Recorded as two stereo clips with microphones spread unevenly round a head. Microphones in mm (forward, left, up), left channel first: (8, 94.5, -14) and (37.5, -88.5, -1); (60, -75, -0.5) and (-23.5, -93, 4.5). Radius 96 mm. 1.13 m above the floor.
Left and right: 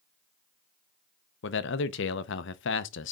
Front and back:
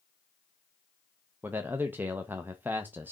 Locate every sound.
1.4 s a man speaking: 115° left, 0.7 m